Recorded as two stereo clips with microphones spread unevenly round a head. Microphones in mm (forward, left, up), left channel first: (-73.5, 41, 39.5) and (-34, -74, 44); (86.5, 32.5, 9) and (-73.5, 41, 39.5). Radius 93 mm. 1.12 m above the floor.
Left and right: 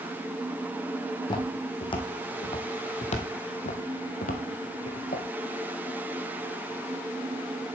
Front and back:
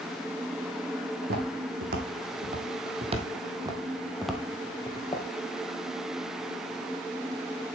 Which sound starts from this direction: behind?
Footsteps, at 1.2 s.